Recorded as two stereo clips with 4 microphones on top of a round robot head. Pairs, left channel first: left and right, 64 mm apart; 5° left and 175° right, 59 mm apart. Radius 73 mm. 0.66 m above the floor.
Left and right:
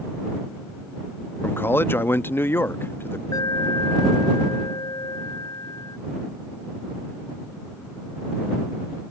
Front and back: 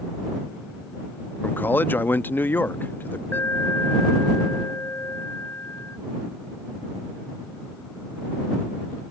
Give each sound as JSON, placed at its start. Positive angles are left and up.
{"t": 1.4, "sound": "a man speaking", "azimuth_deg": 50}
{"t": 3.3, "sound": "an alarm", "azimuth_deg": 60}